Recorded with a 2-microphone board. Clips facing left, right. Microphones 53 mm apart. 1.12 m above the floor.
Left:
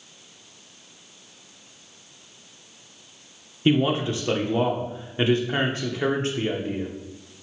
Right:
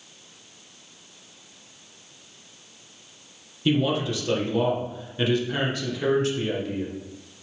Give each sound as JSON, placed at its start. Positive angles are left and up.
{"t": 3.6, "sound": "a man speaking", "side_deg": 30, "distance_m": 0.8}